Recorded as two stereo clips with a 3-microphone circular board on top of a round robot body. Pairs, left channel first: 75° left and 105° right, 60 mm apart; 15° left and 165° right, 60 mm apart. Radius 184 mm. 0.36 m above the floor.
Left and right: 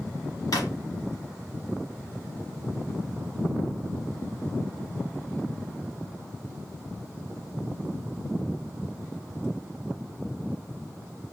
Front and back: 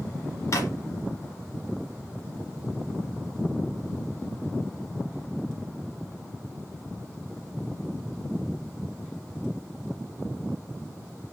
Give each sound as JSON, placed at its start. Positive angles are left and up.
{"t": 0.5, "sound": "a drawer", "azimuth_deg": 55, "distance_m": 1.4}